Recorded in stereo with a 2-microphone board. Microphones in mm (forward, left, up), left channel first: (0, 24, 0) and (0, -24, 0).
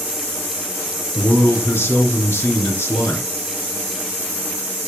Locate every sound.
1.1 s a man speaking: 50° left (ahead or behind), 2.5 m